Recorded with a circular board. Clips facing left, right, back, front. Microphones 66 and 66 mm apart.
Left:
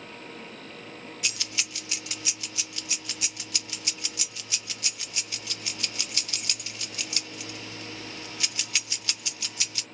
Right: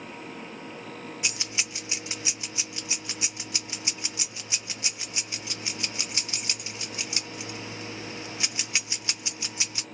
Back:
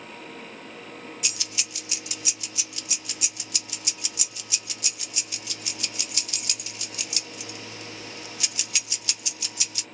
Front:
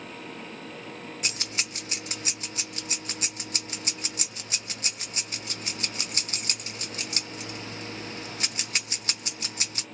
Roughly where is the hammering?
No hammering in this recording.